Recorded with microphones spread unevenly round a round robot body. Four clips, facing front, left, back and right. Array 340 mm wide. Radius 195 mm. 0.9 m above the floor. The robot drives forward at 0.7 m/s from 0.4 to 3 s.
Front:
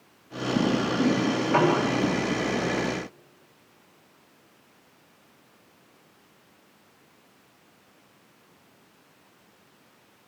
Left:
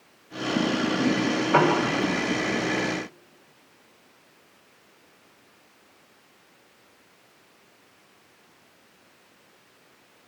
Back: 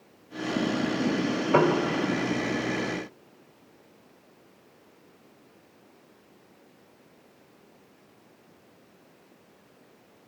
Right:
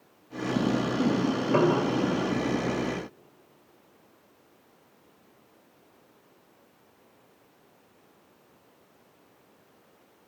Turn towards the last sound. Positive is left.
turn(degrees=175)